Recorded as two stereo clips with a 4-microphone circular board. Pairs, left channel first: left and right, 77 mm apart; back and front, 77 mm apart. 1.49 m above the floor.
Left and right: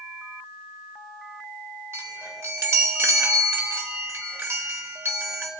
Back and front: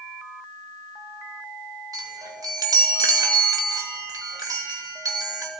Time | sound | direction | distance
1.9 | a chime | 35° right | 3 m